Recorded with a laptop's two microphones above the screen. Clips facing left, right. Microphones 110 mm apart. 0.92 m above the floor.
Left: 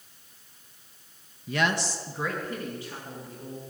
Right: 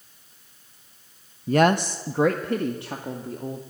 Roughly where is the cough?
I don't hear a cough.